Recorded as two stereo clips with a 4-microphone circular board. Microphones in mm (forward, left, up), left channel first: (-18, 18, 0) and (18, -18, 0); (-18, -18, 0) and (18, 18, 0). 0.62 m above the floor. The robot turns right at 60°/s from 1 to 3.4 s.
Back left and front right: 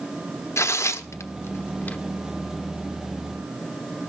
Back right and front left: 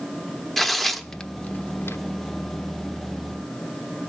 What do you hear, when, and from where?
0.6 s tearing paper: 140° left, 0.9 m; by 2.0 s 160° right, 0.9 m